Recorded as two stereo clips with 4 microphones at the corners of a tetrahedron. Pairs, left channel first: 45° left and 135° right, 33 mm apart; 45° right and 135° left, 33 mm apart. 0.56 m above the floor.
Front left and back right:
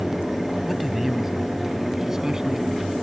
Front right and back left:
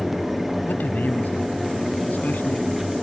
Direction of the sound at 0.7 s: 50° right.